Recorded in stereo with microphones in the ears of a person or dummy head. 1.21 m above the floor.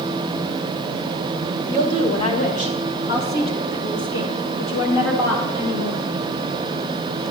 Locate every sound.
1.6 s a woman speaking: 15° left (ahead or behind), 1.4 m; by 6.0 s 80° left, 2.5 m